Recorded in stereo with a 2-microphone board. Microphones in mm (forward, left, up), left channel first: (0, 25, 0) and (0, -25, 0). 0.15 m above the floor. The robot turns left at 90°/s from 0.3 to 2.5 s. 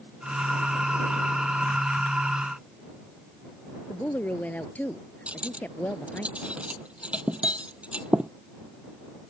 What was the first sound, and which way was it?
A woman speaking, 35° left (ahead or behind).